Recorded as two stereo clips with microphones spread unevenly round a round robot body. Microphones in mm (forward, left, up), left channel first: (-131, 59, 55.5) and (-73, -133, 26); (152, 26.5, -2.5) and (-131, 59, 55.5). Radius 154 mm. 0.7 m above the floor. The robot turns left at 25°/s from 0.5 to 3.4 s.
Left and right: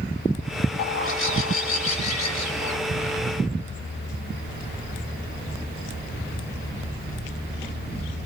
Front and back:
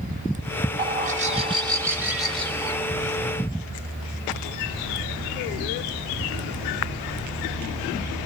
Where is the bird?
115° left, 2.5 m; by 2.8 s 65° left, 2.5 m.